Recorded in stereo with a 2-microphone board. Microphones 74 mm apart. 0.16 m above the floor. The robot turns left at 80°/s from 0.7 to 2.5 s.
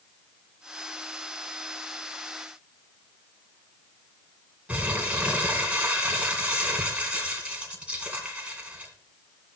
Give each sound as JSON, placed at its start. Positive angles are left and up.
{"t": 4.7, "sound": "crumpling", "side_deg": -20, "distance_m": 1.9}